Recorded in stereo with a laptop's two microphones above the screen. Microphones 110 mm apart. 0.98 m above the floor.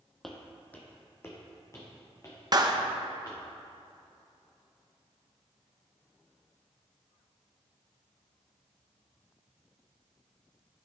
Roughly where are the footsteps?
Centre.